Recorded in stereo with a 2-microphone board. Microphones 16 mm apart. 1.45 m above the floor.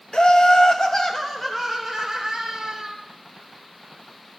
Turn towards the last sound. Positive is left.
turn(degrees=-25)  # may be behind; listen again after turning